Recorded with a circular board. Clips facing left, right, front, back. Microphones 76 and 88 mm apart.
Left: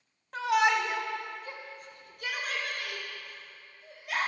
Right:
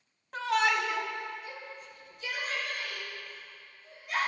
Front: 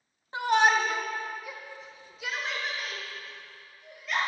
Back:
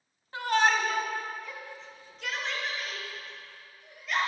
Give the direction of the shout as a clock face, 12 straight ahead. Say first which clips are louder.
Left 2 dB, front 2 dB; 12 o'clock.